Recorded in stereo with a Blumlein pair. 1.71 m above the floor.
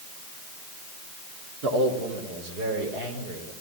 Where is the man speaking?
50° right, 4 m; by 3.5 s 55° right, 6 m.